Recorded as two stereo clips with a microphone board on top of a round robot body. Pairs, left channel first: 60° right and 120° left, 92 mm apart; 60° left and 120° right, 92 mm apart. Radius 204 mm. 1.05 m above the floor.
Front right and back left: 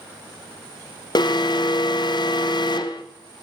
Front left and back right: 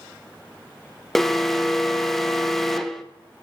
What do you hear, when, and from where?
1.1 s an alarm: 25° right, 0.7 m